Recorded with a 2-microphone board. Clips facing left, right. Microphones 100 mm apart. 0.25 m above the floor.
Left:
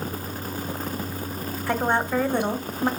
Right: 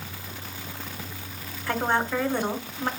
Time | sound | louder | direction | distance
1.7 | a woman speaking | left 2 dB | 15° left (ahead or behind) | 1.0 m